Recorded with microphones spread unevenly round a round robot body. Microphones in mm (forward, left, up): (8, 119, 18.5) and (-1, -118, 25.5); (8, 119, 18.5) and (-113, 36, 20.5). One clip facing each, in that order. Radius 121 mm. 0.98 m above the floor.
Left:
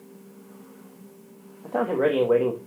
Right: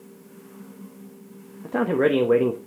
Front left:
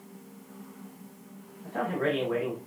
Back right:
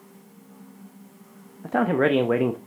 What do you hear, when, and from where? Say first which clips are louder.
1.6 s a man speaking: right 2 dB, back right 8 dB; 155° right, 0.9 m